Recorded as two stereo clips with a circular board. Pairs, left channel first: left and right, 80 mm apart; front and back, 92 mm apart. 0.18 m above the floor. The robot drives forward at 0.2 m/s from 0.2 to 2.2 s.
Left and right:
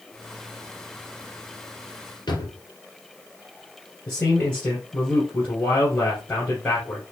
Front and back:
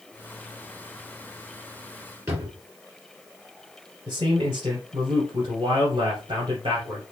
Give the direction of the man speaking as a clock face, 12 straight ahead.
7 o'clock.